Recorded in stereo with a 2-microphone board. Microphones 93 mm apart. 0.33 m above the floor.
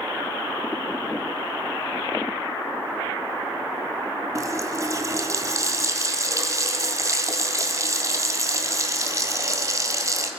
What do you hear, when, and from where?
4.3 s a running tap: 35° right (ahead or behind), 1.4 m